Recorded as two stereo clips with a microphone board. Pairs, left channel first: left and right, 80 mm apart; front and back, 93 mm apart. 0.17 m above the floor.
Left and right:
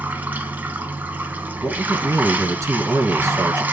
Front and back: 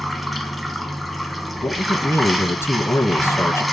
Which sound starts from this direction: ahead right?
A man speaking, at 1.6 s.